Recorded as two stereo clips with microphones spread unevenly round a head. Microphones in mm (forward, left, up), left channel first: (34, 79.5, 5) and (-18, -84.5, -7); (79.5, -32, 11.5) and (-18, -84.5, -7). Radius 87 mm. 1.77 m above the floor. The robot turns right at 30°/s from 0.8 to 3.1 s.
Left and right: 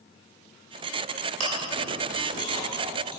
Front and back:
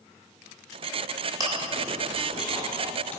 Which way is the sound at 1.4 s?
95° right.